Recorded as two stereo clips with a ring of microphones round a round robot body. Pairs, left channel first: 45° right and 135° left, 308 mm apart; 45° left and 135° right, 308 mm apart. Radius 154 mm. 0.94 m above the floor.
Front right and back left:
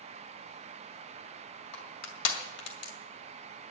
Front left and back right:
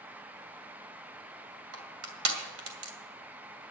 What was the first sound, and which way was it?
Crushing, 85° right.